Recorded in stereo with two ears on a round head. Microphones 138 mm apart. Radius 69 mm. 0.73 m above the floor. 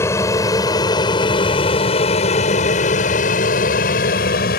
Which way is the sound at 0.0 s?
20° left (ahead or behind).